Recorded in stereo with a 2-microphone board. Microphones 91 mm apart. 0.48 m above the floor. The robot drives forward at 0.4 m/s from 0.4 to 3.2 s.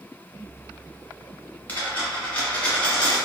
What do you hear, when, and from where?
1.7 s a dropped coin: 20° left (ahead or behind), 1.2 m; by 3.2 s 15° left (ahead or behind), 1.7 m